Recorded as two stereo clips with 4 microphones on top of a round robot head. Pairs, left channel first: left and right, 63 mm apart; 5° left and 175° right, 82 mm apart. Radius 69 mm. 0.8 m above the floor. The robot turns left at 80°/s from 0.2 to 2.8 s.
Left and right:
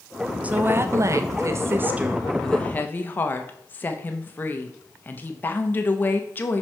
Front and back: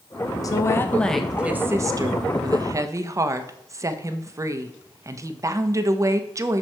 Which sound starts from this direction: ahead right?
A woman speaking, at 0.4 s.